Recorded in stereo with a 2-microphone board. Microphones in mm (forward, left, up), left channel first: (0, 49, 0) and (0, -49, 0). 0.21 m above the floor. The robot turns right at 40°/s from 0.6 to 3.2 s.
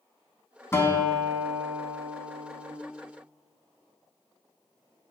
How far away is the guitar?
About 0.5 m.